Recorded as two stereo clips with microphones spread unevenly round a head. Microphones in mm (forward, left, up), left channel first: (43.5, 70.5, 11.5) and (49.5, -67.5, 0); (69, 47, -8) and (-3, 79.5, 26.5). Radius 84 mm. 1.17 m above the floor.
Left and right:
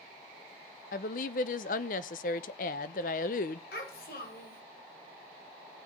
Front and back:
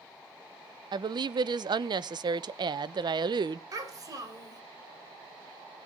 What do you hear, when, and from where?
0.9 s a woman speaking: 120° left, 0.6 m
3.7 s a child speaking: 125° left, 3 m